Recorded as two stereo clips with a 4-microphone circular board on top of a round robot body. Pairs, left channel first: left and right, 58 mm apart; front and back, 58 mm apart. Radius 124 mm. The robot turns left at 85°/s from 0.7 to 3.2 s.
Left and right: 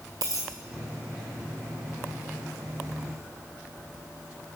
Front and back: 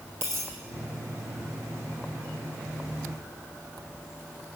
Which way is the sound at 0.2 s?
120° right.